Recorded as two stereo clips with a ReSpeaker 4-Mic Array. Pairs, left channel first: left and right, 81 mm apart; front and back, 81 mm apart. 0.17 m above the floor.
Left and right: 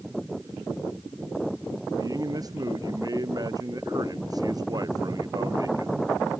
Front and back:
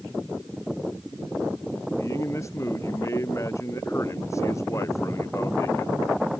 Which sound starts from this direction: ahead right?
A man speaking, at 2.0 s.